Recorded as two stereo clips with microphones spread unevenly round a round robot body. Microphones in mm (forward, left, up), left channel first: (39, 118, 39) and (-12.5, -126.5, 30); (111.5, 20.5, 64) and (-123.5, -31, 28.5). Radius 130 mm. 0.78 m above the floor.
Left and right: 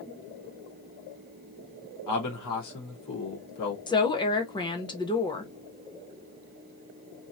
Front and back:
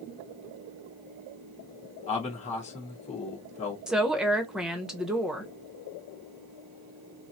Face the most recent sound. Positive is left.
turn(degrees=130)